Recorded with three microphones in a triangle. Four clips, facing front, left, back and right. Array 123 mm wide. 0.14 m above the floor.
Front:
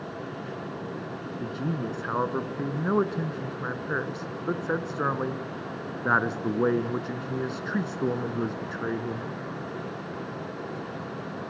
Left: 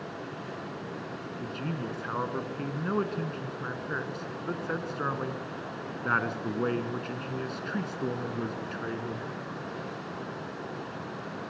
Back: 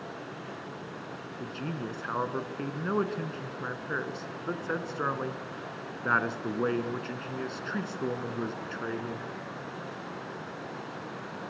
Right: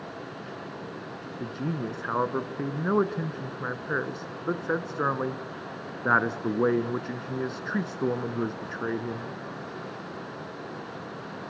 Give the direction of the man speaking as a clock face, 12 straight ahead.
2 o'clock.